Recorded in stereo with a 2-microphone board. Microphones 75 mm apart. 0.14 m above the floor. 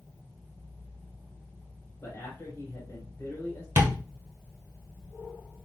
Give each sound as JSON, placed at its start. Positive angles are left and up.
{"t": 2.0, "sound": "a man speaking", "side_deg": 30, "distance_m": 1.8}
{"t": 3.8, "sound": "tapping", "side_deg": -30, "distance_m": 1.4}